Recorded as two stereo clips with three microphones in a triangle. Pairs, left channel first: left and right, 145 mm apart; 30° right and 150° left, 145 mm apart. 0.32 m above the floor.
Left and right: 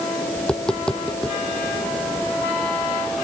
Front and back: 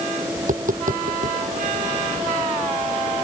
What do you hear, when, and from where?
0.4 s tapping: 175° left